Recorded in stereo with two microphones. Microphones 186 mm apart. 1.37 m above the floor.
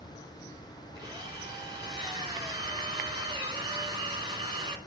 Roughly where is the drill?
Right.